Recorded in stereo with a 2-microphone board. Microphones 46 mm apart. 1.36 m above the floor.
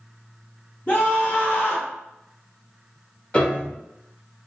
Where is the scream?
40° left (ahead or behind), 1.1 m; by 1.9 s 35° left (ahead or behind), 1.9 m.